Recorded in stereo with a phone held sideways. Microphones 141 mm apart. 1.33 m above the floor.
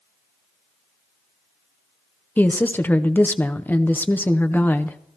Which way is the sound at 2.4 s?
15° left (ahead or behind).